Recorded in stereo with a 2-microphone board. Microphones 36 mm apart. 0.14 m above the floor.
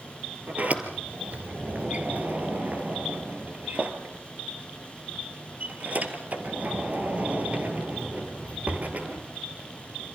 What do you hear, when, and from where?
0.5 s a sliding door: 45° right (ahead or behind), 2.5 m